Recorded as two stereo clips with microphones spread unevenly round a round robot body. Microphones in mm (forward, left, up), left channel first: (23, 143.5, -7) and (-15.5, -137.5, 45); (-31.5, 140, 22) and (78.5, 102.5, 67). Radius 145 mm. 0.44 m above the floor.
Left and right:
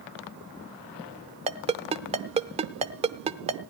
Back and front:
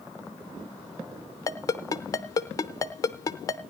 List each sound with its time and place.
1.5 s a ringtone: 170° right, 0.7 m